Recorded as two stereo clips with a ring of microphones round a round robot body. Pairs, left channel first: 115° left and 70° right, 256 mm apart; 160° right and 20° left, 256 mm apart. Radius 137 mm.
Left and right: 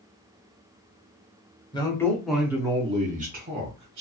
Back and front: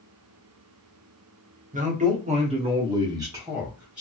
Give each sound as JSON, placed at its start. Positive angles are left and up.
{"t": 1.7, "sound": "a man speaking", "azimuth_deg": 55, "distance_m": 1.1}